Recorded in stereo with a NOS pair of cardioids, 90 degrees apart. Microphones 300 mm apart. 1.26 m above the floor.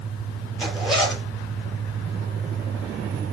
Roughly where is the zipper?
Ahead.